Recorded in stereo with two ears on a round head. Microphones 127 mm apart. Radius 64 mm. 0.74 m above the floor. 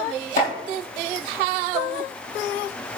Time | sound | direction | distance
0.4 | chopping | 60° left (ahead or behind) | 3.5 m